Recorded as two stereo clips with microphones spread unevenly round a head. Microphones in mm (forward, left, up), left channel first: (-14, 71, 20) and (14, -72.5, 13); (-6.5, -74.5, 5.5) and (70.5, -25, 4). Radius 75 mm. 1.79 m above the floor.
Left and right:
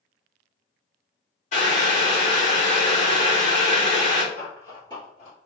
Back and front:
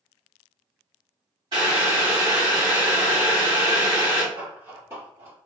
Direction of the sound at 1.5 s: 80° left.